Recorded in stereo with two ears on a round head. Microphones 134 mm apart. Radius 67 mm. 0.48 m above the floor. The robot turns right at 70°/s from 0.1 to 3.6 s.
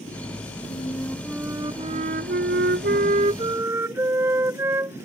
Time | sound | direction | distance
0.7 | a flute | 140° left | ?